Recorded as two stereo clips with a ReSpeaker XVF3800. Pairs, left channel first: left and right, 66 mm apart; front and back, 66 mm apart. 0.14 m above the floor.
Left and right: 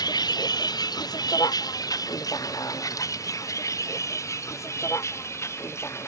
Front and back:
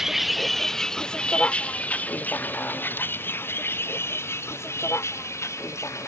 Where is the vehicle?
95° left; by 6.1 s 40° left.